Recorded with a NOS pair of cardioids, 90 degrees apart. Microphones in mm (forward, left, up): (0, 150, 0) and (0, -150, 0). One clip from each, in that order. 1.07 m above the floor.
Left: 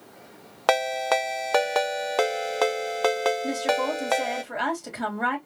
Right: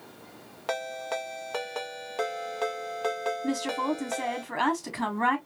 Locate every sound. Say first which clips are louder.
0.7 s a ringtone: left 10 dB; 50° left, 0.6 m
3.4 s a woman speaking: left 5 dB; 5° right, 3 m